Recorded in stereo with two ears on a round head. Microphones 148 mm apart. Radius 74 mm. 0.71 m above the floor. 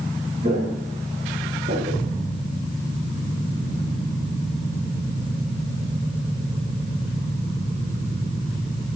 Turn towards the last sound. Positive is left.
turn(degrees=-55)  # may be behind; listen again after turning